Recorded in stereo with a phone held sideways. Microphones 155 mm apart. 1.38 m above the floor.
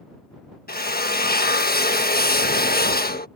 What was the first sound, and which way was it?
A drill, 80° left.